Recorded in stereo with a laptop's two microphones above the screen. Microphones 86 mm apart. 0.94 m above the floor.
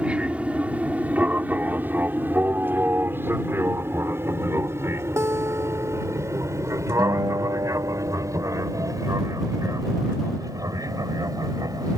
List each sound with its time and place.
0.0 s an aircraft: 15° right (ahead or behind); by 12.0 s 45° right (ahead or behind)
5.2 s a guitar: 35° right (ahead or behind)
7.0 s a guitar: 50° right (ahead or behind)